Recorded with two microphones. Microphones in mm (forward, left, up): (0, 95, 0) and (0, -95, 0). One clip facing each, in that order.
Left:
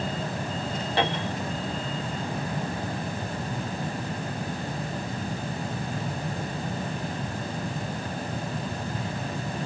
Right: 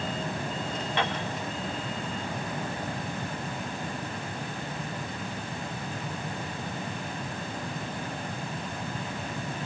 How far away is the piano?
About 3.5 m.